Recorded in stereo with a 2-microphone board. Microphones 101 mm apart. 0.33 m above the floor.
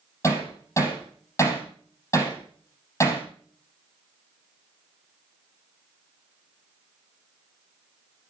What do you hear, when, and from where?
0.2 s hammering: 30° left (ahead or behind), 5.5 m